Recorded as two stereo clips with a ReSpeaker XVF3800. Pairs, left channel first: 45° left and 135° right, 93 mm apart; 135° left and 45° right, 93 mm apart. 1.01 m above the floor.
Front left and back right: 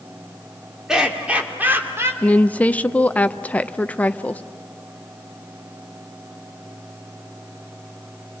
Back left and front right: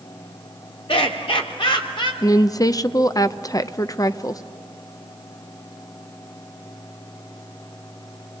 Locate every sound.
0.9 s laughter: 140° left, 3 m; by 2.1 s 165° left, 3.5 m
2.2 s a woman speaking: 115° left, 0.6 m